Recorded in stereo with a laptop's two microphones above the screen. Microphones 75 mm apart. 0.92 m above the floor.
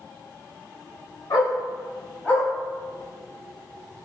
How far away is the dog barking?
About 1.4 m.